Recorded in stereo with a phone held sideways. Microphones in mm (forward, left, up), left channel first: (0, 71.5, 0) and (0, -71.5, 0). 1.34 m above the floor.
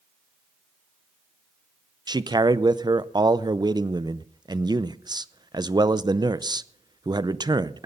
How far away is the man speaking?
About 0.6 m.